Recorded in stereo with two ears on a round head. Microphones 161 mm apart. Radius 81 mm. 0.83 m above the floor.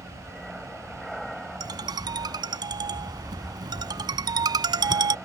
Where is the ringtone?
25° right (ahead or behind).